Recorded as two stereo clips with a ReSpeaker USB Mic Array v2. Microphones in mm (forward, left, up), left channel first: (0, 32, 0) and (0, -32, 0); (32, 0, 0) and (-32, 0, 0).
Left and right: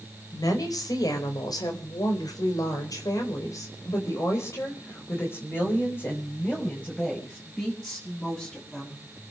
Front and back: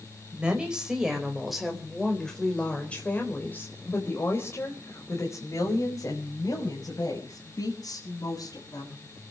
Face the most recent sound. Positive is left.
turn(degrees=15)